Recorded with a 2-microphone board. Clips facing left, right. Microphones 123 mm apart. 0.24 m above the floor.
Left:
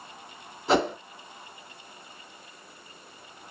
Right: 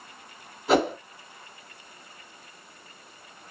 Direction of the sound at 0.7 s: Centre (ahead or behind).